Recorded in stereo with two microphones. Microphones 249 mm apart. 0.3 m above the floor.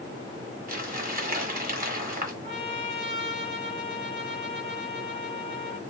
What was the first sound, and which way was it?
Crumpling, 35° right (ahead or behind).